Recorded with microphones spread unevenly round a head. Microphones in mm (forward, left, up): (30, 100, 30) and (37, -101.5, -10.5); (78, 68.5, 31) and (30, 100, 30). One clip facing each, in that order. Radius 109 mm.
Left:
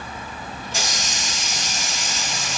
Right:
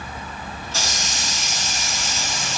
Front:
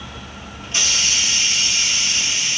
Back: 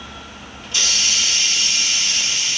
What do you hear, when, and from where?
0.6 s a hiss: 20° left, 1.9 m